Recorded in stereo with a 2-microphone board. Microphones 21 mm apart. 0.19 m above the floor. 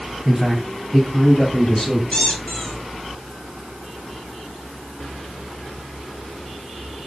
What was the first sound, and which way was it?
A man speaking, 10° right (ahead or behind).